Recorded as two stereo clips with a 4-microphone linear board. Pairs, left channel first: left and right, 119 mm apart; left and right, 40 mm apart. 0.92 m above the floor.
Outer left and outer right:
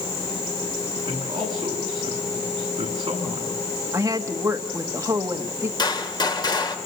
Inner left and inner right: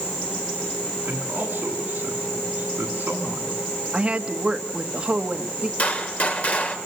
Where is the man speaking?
40° right (ahead or behind), 8.5 m.